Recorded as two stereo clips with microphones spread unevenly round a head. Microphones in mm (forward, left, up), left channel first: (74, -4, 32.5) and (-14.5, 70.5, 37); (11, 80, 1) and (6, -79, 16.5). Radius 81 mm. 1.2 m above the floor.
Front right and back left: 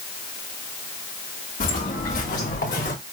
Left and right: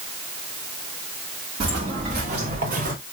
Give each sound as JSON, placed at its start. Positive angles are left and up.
{"t": 1.6, "sound": "footsteps", "azimuth_deg": -40, "distance_m": 4.5}